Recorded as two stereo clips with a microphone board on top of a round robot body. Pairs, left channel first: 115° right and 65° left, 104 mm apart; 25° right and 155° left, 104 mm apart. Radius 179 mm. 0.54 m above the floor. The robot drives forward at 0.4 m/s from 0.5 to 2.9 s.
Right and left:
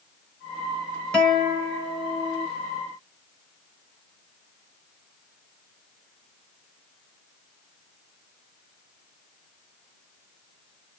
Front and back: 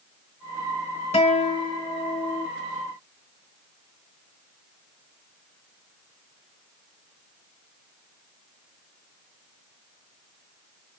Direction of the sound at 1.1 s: 30° right.